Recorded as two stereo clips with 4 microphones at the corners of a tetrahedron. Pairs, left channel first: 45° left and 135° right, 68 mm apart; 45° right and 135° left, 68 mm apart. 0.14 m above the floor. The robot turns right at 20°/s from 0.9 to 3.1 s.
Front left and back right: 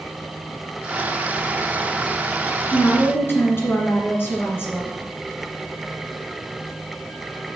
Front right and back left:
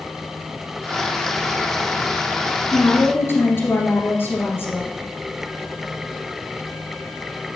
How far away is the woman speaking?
About 1.8 m.